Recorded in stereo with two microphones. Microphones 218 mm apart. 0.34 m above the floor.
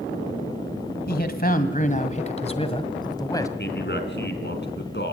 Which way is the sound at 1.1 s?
50° left (ahead or behind).